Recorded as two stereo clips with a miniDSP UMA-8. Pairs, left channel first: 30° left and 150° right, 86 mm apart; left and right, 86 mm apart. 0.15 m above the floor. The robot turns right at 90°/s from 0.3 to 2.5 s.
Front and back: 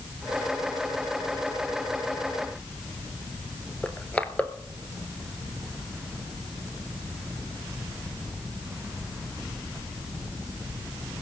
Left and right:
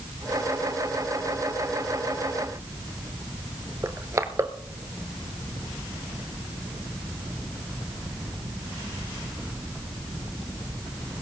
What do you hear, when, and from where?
3.8 s crushing: 40° right, 1.0 m